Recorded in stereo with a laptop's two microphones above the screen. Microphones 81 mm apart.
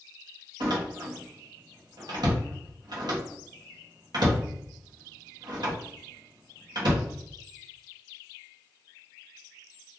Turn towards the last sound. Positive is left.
turn(degrees=-60)  # may be behind; listen again after turning